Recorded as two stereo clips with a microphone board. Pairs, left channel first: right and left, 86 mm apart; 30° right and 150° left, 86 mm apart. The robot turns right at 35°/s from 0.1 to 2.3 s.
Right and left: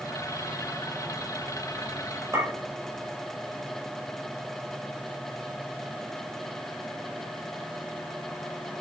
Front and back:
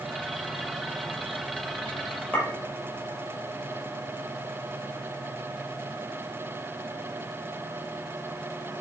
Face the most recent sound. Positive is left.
turn(degrees=40)